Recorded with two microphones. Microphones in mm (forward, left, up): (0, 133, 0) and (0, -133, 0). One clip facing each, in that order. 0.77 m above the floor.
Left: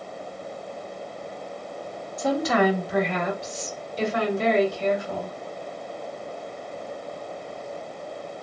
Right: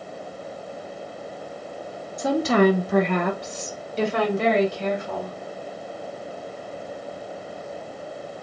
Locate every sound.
2.2 s a woman speaking: 15° right (ahead or behind), 0.7 m; by 5.4 s 65° right (ahead or behind), 2 m